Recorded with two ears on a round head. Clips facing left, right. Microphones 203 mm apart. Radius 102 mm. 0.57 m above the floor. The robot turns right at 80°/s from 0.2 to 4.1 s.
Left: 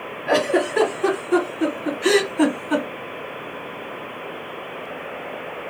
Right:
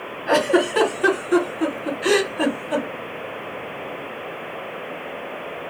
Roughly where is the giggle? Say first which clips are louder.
Right 1 dB; right.